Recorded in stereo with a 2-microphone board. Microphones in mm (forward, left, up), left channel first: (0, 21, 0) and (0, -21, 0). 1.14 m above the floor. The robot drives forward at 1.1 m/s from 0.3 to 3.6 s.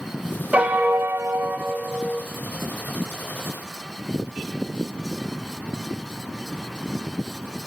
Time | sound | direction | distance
0.5 | a piano | 30° right (ahead or behind) | 0.8 m